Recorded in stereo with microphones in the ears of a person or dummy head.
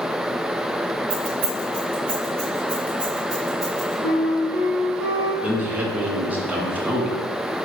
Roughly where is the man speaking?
Centre.